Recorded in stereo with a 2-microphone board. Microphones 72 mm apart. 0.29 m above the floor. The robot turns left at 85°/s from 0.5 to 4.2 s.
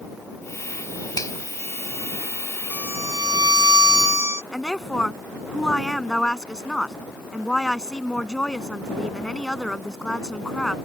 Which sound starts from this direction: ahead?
A violin, at 2.7 s.